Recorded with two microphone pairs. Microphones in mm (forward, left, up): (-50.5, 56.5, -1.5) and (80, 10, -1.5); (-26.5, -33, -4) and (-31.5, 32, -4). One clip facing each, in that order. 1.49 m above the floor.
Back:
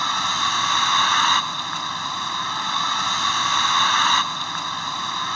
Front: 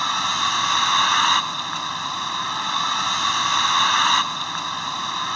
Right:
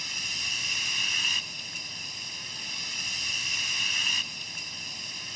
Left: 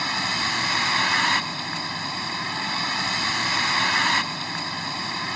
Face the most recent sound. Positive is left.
turn(degrees=70)